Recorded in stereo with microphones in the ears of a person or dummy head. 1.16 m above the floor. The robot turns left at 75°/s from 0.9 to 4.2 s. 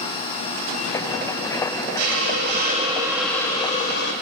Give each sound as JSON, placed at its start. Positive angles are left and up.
{"t": 2.0, "sound": "a hiss", "azimuth_deg": -80, "distance_m": 1.5}